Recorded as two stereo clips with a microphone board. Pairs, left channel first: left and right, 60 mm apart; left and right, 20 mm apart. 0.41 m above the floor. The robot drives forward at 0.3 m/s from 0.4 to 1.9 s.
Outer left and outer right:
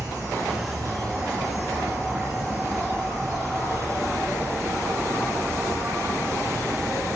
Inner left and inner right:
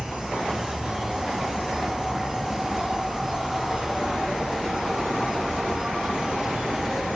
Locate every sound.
0.0 s an insect: 65° right (ahead or behind), 4 m; by 7.2 s 60° right (ahead or behind), 4 m